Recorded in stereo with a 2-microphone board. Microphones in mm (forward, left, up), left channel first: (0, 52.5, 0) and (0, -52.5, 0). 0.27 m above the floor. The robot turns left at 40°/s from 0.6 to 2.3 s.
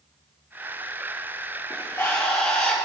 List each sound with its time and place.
1.7 s a bird: 45° left (ahead or behind), 5.5 m; by 2.9 s 20° left (ahead or behind), 5.5 m